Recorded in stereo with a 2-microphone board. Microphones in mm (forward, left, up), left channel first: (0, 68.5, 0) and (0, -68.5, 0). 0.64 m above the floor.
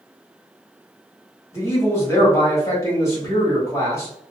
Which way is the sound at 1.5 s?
20° left (ahead or behind).